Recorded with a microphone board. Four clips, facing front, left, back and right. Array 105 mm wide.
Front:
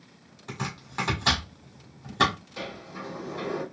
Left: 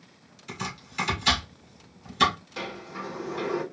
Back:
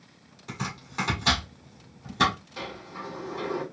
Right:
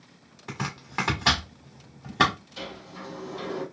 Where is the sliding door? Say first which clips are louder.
Left 3 dB, even; 95° left, 1.2 m.